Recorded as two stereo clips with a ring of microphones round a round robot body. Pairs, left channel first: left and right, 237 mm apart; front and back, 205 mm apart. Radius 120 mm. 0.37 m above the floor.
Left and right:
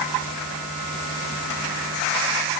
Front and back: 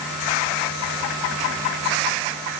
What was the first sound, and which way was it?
Only background noise.